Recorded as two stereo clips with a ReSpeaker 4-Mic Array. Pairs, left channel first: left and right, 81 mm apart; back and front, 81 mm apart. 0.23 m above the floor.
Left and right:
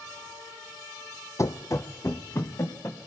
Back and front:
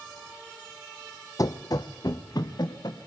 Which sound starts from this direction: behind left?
Running footsteps, at 1.4 s.